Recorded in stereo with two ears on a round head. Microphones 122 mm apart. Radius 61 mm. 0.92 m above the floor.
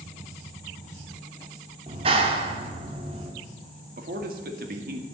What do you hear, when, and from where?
1.9 s a clap: 40° right (ahead or behind), 1.7 m
4.0 s a man speaking: 70° right (ahead or behind), 2 m